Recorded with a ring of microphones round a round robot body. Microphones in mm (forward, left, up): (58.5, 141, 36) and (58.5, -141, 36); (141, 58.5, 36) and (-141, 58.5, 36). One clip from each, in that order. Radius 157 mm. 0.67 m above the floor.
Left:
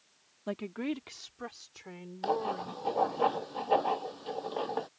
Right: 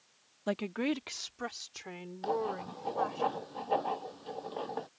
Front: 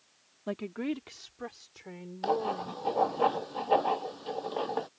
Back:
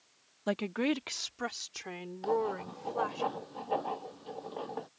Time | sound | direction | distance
0.5 | a woman speaking | 145° right | ?
2.2 | writing | 35° left | ?